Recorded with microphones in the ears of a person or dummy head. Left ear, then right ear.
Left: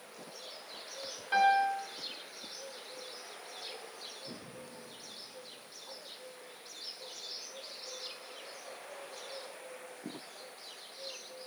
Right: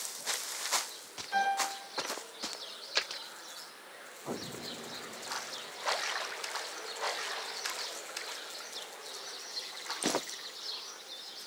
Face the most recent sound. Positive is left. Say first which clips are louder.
# left 4 dB
turn(degrees=65)  # may be behind; listen again after turning